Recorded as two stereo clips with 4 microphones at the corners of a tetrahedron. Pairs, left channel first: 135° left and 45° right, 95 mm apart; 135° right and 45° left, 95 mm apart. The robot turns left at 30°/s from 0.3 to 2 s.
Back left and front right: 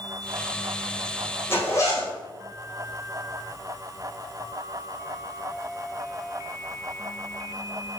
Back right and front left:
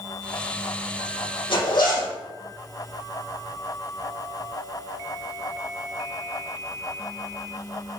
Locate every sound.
1.5 s a zipper: 160° right, 4 m; by 2.1 s 175° right, 4 m